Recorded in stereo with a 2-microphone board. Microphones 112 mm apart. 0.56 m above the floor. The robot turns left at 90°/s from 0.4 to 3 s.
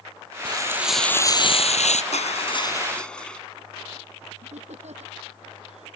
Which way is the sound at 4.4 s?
80° right.